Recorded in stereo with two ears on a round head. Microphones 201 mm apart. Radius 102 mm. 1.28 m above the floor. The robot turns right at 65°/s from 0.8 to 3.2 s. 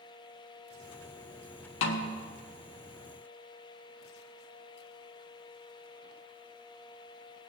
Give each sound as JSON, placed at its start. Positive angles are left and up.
{"t": 1.8, "sound": "a snare drum", "side_deg": 70, "distance_m": 1.5}